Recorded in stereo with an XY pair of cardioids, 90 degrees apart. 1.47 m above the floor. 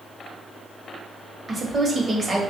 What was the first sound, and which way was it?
A woman speaking, 35° right.